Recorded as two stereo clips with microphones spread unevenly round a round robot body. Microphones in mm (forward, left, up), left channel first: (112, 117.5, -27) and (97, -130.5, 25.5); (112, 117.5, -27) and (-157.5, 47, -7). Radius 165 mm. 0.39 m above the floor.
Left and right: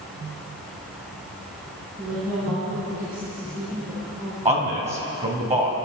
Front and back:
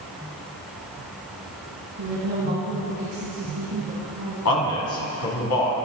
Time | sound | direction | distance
2.0 | a woman speaking | 145° right | 3.5 m
4.5 | a man speaking | 25° right | 3 m